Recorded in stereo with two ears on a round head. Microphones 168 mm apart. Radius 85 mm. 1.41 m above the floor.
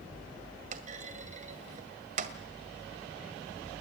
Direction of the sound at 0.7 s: 40° right (ahead or behind).